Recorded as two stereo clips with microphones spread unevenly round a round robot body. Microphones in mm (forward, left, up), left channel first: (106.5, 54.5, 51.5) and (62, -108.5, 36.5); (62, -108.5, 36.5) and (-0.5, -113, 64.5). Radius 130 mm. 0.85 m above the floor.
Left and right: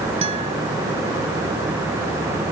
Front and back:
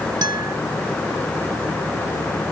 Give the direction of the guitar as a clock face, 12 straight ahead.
6 o'clock.